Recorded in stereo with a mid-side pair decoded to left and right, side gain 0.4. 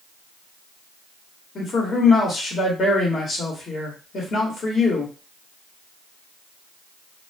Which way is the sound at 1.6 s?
50° left.